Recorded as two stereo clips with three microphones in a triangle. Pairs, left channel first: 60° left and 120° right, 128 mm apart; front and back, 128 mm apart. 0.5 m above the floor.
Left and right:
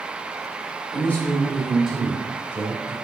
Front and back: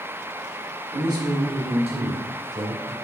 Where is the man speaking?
125° left, 1.1 m; by 3.0 s 175° left, 1.6 m.